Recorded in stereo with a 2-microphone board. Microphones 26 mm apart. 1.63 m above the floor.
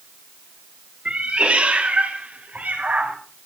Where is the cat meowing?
40° right (ahead or behind), 3 m; by 3.2 s 75° right (ahead or behind), 4 m.